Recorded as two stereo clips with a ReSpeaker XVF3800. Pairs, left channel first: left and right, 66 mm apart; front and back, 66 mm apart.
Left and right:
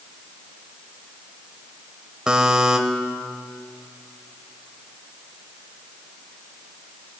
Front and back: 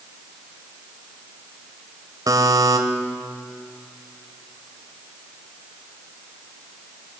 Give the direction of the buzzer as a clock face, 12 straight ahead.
6 o'clock.